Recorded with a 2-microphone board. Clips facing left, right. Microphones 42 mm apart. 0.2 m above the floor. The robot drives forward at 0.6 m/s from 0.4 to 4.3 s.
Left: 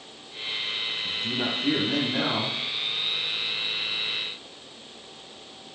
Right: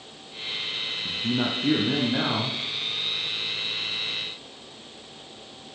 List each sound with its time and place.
1.1 s a man speaking: 25° right (ahead or behind), 1.3 m; by 2.6 s 20° right (ahead or behind), 1.9 m